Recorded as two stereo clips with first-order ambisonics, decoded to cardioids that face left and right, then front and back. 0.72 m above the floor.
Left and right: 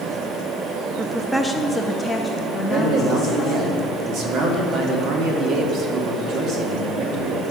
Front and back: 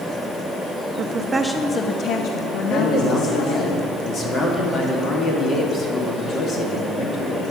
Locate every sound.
1.0 s a woman speaking: 160° right, 0.6 m; by 3.7 s 10° left, 1.3 m
2.7 s a man speaking: 60° right, 1.5 m